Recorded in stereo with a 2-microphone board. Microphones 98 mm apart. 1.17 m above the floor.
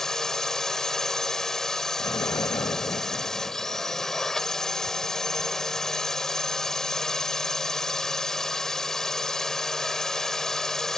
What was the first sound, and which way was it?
A drone, 5° left (ahead or behind).